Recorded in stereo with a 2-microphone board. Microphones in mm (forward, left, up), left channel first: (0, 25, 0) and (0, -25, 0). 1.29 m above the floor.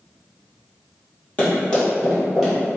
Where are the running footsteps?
30° left (ahead or behind), 1.6 m; by 2.7 s 10° right (ahead or behind), 1.4 m.